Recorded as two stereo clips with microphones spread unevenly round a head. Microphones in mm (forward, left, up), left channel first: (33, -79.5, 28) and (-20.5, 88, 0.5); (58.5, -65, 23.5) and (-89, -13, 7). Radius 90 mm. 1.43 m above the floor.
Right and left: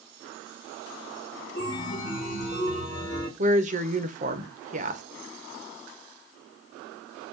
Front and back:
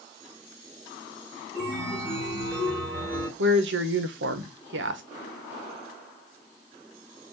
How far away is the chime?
About 2.5 m.